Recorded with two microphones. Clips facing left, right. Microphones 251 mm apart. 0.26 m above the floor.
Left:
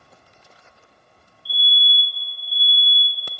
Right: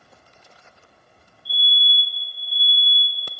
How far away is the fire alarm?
About 2.5 m.